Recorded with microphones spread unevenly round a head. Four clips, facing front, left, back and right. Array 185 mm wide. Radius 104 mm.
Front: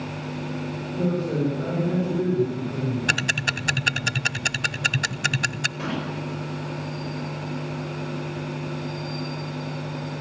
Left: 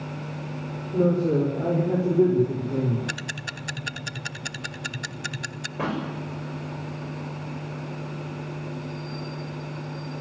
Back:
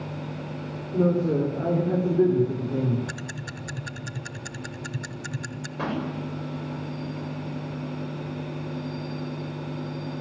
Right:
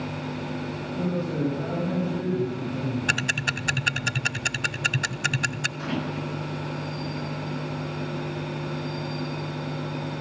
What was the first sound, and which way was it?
A man speaking, 110° left.